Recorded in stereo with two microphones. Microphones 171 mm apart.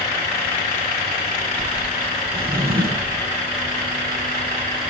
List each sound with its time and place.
2.3 s a drawer: 60° right (ahead or behind), 1.7 m